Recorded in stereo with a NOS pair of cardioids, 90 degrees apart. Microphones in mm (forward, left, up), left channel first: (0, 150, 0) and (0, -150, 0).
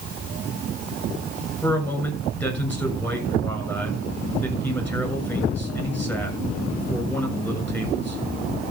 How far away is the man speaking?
About 6.5 m.